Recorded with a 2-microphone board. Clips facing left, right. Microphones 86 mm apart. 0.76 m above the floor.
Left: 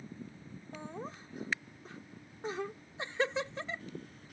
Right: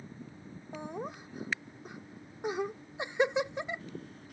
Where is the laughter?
20° right (ahead or behind).